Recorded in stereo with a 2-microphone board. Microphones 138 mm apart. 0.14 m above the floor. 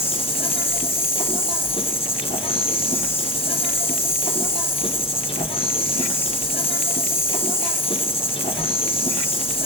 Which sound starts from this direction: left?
An insect, at 0.0 s.